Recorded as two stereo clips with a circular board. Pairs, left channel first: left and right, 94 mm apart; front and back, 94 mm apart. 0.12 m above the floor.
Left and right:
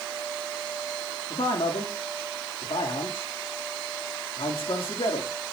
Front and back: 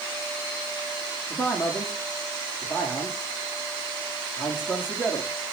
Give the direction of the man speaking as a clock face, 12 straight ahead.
9 o'clock.